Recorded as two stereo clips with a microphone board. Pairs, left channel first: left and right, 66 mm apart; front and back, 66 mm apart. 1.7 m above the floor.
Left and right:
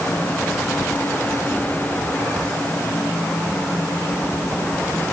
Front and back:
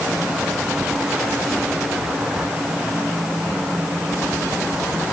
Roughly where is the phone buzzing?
No phone buzzing in this recording.